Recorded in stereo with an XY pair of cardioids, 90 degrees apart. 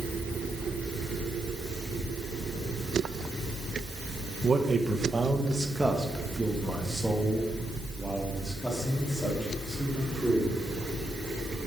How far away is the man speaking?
About 1.2 m.